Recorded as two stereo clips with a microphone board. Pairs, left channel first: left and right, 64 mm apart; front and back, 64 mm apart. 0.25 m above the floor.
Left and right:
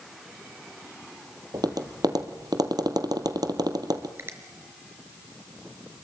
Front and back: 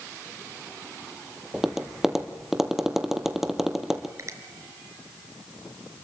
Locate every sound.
1.5 s tapping: 95° right, 2 m
4.2 s a finger snap: 140° right, 4 m